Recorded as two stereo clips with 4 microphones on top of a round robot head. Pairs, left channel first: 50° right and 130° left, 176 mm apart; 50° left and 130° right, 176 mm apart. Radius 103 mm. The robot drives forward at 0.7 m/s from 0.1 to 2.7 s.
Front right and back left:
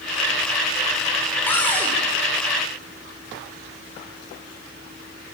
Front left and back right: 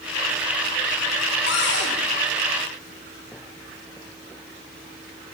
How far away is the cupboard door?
About 6.5 m.